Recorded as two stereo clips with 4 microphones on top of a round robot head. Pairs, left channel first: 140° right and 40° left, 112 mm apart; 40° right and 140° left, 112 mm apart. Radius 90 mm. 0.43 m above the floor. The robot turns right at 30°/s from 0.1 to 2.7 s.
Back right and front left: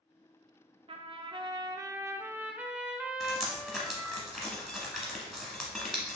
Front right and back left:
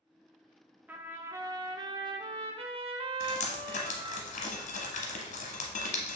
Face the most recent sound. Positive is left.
turn(degrees=-50)